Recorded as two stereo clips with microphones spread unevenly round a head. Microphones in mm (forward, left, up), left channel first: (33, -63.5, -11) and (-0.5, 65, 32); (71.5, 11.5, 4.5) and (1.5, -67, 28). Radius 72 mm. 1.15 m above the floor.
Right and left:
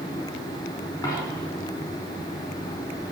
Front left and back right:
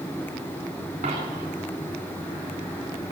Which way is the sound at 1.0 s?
145° right.